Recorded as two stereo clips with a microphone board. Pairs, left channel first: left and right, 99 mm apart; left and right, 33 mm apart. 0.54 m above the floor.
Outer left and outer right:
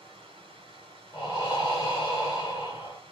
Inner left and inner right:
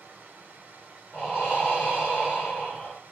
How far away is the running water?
About 1.1 m.